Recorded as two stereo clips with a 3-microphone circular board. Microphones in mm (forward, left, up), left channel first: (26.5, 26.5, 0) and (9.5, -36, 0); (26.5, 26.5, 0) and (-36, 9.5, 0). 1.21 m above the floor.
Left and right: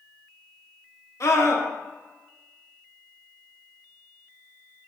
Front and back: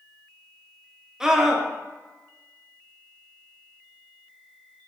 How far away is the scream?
About 1.3 m.